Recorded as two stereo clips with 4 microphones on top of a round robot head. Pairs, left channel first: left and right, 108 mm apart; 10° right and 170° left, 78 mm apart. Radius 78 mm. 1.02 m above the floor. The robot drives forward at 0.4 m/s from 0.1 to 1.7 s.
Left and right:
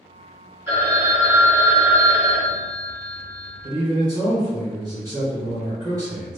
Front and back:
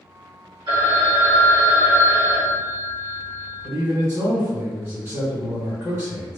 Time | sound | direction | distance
0.7 | a phone ringing | 155° right | 1.5 m
3.6 | a man speaking | 140° right | 1.4 m